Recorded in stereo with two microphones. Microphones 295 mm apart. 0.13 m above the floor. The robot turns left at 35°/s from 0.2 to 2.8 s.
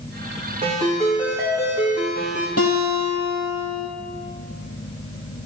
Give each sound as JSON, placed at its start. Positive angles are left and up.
{"t": 0.6, "sound": "a ringtone", "azimuth_deg": -155, "distance_m": 4.0}
{"t": 2.6, "sound": "a guitar", "side_deg": 50, "distance_m": 2.0}